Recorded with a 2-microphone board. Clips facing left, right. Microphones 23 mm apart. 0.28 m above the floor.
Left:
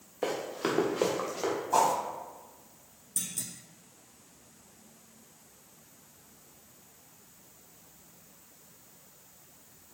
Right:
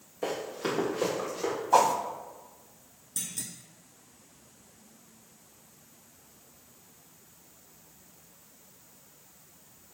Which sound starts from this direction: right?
A whoosh, at 1.7 s.